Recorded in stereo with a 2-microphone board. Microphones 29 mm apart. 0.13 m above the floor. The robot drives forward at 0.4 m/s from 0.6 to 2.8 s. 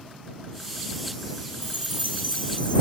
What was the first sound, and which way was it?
A chime, 70° left (ahead or behind).